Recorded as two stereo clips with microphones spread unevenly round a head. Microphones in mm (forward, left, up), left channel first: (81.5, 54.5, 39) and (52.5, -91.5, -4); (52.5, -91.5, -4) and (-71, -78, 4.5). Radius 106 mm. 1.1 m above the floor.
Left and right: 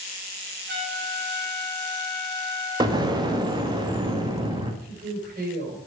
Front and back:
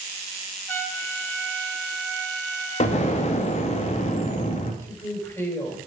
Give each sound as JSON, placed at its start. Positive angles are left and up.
{"t": 0.7, "sound": "a trumpet", "azimuth_deg": -85, "distance_m": 3.5}
{"t": 2.8, "sound": "an explosion", "azimuth_deg": -40, "distance_m": 1.7}
{"t": 4.8, "sound": "a woman speaking", "azimuth_deg": -75, "distance_m": 5.0}